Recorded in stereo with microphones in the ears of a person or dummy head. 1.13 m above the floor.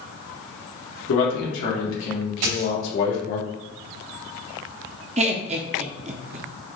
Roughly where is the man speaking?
Left.